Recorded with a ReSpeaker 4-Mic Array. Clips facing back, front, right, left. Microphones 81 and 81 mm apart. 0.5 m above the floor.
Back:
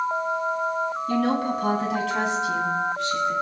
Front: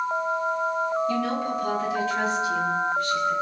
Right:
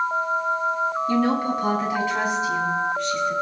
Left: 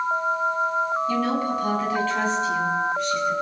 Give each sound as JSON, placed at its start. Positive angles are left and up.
{"t": 1.1, "sound": "a woman speaking", "azimuth_deg": -145, "distance_m": 4.0}